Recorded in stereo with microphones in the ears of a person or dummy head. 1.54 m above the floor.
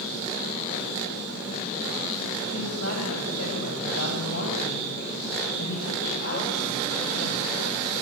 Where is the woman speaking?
80° left, 8.5 m; by 7.6 s 55° left (ahead or behind), 7.5 m.